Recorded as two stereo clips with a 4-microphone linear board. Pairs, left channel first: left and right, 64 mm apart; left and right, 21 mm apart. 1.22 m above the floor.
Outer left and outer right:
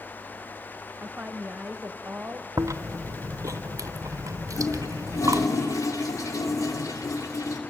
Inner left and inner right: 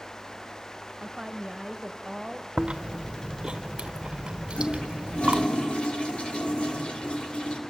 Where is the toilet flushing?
60° left (ahead or behind), 2.5 m.